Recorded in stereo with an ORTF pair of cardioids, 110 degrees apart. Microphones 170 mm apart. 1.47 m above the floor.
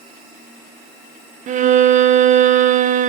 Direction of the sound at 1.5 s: 50° right.